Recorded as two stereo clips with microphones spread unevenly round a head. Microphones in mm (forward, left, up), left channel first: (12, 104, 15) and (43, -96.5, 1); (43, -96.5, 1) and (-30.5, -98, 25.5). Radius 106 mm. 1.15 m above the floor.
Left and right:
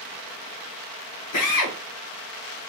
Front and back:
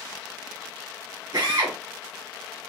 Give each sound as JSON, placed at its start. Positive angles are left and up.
{"t": 1.3, "sound": "a drill", "azimuth_deg": 110, "distance_m": 2.0}